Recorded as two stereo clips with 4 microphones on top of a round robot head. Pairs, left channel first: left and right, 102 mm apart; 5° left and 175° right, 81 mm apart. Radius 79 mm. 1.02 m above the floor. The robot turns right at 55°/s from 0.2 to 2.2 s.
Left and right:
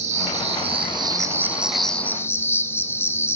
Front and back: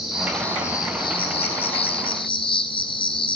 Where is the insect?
85° right, 0.8 m; by 3.4 s 25° left, 0.8 m.